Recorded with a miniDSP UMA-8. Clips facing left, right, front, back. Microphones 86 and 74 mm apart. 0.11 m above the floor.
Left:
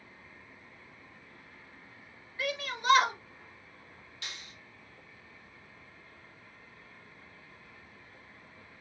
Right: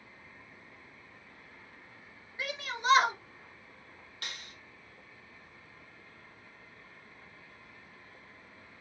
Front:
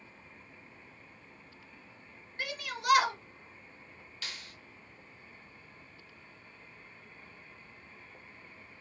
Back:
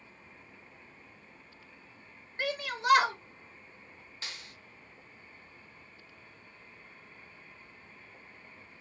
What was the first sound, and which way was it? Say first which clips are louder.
A shout: left 1 dB, back 5 dB; 145° right.